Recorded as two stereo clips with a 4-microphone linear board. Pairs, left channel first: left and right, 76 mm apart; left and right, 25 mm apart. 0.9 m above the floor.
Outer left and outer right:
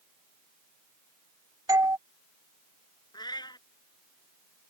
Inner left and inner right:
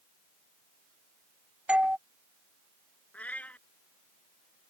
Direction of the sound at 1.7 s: 50° right (ahead or behind).